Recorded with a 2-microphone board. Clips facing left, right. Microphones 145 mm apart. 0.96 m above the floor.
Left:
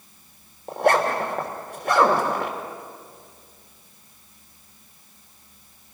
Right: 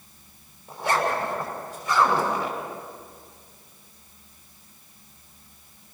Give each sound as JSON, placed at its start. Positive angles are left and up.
{"t": 0.7, "sound": "a zipper", "side_deg": 70, "distance_m": 3.0}